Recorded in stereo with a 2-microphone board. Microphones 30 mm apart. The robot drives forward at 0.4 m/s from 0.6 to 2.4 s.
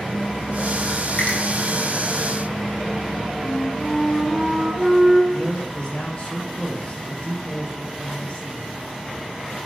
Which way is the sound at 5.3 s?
35° left (ahead or behind).